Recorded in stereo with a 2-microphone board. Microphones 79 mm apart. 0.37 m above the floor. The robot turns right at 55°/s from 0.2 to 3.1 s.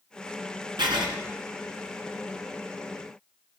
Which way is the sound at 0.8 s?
70° right (ahead or behind).